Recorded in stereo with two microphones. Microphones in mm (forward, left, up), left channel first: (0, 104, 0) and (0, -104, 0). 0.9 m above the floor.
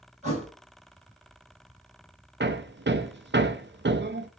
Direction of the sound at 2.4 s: 60° right (ahead or behind).